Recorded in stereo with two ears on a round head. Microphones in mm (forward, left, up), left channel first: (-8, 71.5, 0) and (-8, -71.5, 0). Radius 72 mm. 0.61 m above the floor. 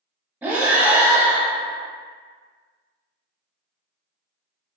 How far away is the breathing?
About 0.6 m.